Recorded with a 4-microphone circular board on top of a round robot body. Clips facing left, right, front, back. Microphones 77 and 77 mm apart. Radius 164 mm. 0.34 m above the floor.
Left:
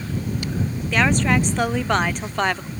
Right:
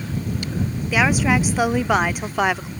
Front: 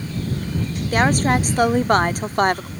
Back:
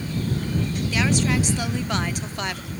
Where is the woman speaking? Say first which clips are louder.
Right 1 dB, front 6 dB; 10° right.